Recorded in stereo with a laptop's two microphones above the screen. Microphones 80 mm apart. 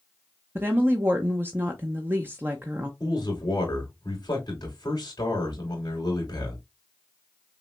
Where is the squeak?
I don't hear a squeak.